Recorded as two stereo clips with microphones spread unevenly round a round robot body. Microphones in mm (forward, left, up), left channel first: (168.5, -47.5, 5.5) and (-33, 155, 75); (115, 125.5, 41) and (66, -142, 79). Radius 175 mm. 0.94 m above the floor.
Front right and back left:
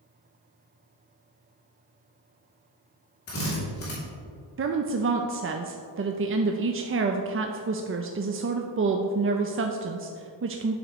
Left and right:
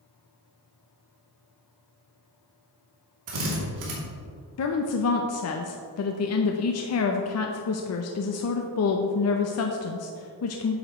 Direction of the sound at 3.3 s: 100° right.